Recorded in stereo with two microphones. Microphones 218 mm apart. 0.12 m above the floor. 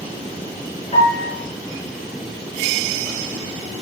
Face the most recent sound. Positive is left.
turn(degrees=35)  # may be behind; listen again after turning